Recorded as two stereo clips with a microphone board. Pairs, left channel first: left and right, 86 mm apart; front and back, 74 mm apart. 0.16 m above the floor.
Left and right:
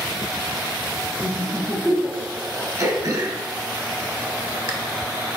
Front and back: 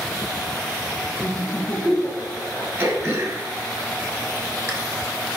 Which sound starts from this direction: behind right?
Throat clearing, at 2.8 s.